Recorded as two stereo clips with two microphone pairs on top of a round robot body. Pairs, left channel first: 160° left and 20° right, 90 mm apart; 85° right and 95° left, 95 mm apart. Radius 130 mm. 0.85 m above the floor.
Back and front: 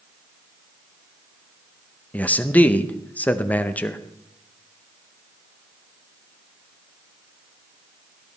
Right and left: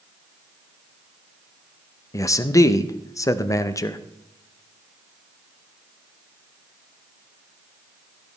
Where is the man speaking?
130° right, 0.8 m.